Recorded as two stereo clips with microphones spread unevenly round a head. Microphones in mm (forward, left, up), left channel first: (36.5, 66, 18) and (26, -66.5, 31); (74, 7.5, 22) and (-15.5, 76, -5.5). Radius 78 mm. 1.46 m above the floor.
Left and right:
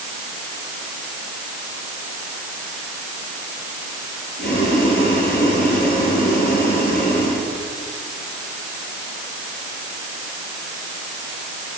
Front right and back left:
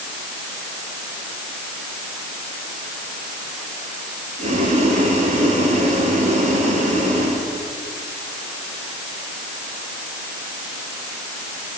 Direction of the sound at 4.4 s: 120° left.